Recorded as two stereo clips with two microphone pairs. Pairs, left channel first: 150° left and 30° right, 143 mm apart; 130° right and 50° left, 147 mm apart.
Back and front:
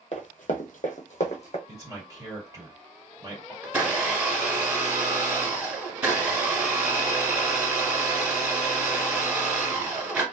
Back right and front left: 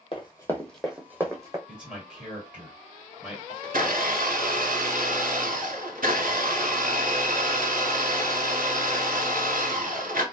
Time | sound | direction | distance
0.1 | running footsteps | straight behind | 0.7 m
1.7 | a man speaking | 25° right | 1.6 m
3.6 | a blender | 50° left | 1.2 m